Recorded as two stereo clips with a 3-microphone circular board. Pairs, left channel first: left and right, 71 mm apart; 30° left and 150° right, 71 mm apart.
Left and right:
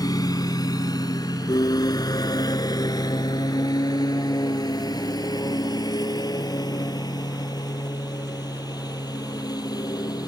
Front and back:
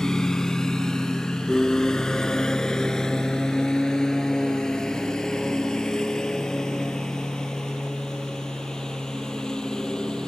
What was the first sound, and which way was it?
A lawn mower, 110° left.